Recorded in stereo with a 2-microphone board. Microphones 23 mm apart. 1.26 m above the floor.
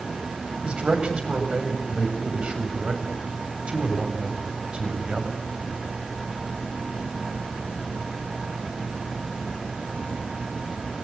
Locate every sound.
0.6 s a man speaking: 45° right (ahead or behind), 7 m